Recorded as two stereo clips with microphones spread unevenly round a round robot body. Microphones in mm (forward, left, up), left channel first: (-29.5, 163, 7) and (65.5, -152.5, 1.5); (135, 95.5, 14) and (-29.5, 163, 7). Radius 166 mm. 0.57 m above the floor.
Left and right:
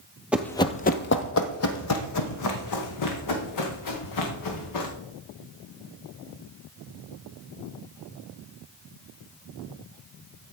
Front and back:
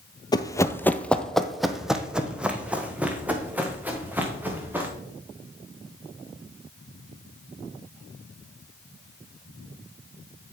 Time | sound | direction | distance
0.3 | running footsteps | 10° left | 0.6 m